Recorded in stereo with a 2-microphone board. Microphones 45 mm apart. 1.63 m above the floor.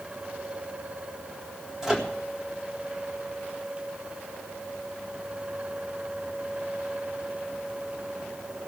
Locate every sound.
1.8 s a microwave: 10° right (ahead or behind), 1.8 m